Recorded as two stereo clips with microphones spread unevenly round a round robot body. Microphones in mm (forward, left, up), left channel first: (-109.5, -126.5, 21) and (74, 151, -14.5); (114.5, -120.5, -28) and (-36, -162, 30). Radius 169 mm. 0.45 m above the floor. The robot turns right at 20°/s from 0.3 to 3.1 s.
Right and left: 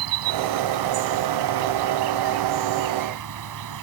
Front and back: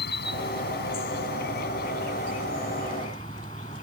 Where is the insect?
30° left; by 3.8 s 85° left.